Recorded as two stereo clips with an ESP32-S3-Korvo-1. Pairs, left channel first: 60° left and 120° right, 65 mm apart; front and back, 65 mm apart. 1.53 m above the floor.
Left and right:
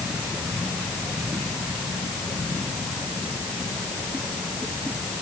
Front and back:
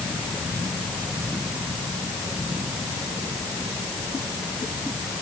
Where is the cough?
I don't hear a cough.